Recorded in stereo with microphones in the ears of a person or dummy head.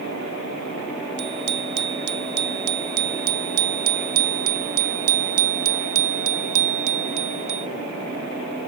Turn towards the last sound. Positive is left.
turn(degrees=-50)  # may be behind; listen again after turning